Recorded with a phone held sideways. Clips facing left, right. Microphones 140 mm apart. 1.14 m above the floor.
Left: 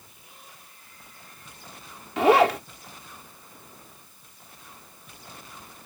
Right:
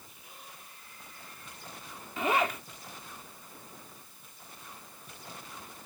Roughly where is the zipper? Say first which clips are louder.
Left 11 dB; left.